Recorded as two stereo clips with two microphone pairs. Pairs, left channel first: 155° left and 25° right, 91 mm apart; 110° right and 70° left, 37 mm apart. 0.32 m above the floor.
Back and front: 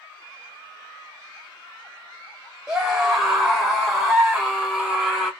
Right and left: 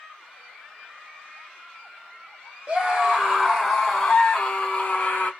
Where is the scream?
45° left, 1.5 m; by 5.3 s 125° right, 1.7 m.